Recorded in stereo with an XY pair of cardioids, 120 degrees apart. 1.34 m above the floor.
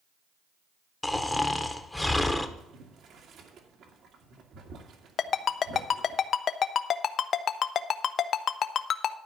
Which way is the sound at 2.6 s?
60° right.